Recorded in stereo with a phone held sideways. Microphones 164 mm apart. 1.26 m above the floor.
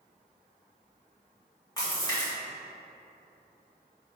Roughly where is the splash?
Left.